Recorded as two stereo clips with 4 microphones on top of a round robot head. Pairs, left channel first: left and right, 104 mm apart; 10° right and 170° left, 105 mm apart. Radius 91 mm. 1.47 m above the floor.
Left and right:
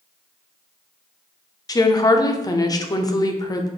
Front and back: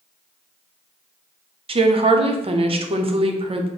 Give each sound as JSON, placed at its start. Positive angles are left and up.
{"t": 1.7, "sound": "a woman speaking", "azimuth_deg": 145, "distance_m": 0.7}